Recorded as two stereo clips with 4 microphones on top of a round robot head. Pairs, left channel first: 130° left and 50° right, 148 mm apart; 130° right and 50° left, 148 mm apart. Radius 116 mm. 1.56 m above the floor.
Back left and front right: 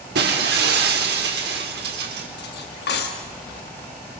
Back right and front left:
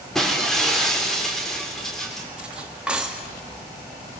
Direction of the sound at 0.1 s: 45° right.